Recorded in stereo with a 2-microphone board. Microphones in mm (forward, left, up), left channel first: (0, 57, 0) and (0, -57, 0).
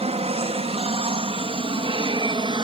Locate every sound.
0.0 s an aircraft: 60° right (ahead or behind); by 2.6 s 45° right (ahead or behind)